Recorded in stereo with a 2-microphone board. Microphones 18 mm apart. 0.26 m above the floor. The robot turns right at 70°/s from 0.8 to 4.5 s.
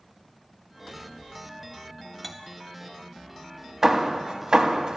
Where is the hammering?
35° right (ahead or behind), 0.7 m; by 5.0 s 50° right (ahead or behind), 0.7 m.